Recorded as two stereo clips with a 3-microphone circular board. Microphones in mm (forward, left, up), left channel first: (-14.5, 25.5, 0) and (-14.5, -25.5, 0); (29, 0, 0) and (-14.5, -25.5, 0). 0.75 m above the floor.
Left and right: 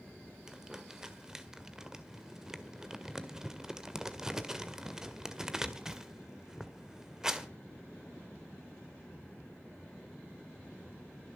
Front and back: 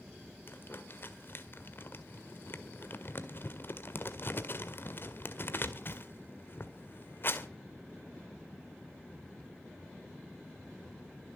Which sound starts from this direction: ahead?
Crumpling, at 0.5 s.